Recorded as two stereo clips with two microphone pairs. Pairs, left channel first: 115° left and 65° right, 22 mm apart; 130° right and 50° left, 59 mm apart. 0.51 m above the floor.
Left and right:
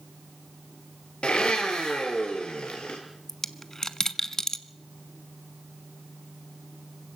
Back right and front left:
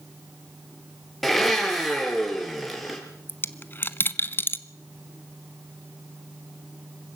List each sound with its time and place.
1.2 s a blender: 145° left, 3.5 m
3.3 s a dropped coin: straight behind, 0.7 m